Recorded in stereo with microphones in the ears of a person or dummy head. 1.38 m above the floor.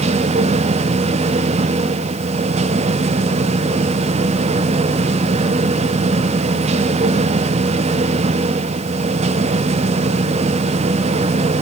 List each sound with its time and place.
0.0 s a machine running: 30° right (ahead or behind), 1.0 m